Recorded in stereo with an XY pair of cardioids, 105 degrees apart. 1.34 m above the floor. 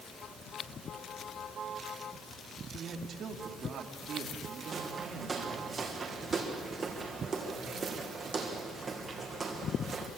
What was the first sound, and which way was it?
A man speaking, 60° right.